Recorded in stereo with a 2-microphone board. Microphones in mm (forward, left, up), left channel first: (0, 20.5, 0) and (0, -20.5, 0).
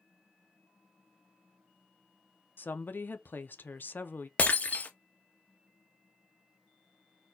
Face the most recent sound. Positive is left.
turn(degrees=35)  # may be behind; listen again after turning